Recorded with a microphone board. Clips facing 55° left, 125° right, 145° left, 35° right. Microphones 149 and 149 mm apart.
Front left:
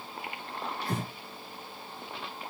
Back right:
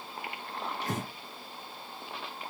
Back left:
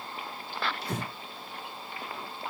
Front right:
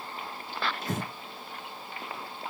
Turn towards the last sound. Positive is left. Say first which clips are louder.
# front left 1 dB, front right 1 dB
turn(degrees=-80)